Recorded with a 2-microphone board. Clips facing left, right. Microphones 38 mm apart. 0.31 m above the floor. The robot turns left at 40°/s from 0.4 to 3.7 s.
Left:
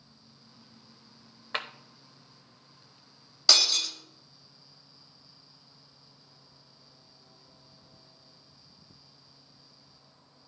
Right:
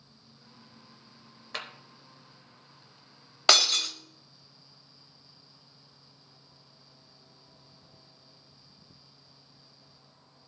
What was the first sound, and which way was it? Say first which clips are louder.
A clap: left 4 dB; 25° left (ahead or behind).